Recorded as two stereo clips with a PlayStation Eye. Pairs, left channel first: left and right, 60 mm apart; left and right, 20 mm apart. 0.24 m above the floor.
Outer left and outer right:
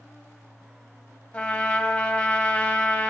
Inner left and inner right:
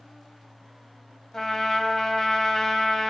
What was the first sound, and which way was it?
A trumpet, 20° left (ahead or behind).